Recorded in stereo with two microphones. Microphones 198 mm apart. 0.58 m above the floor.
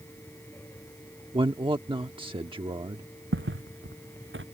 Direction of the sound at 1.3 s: 25° right (ahead or behind).